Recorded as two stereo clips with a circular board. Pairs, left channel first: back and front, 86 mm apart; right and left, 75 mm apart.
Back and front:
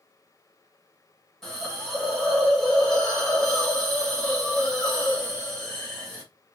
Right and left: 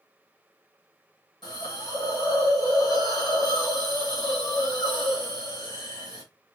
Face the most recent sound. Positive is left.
turn(degrees=-95)